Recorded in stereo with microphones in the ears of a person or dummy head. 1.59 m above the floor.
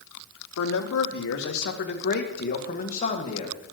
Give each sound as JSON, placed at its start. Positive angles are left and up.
{"t": 0.6, "sound": "a man speaking", "side_deg": 75, "distance_m": 1.8}